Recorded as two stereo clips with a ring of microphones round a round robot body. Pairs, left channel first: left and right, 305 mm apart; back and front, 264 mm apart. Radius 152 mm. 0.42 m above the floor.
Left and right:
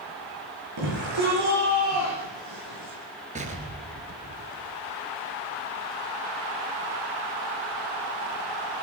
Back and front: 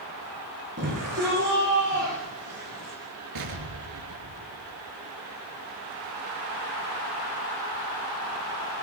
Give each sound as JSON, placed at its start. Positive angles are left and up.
{"t": 0.8, "sound": "a shout", "azimuth_deg": -55, "distance_m": 9.5}
{"t": 3.4, "sound": "an explosion", "azimuth_deg": -20, "distance_m": 3.0}